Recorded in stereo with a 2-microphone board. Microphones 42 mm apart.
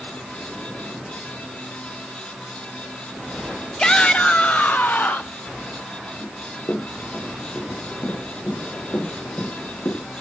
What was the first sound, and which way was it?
A shout, 20° left (ahead or behind).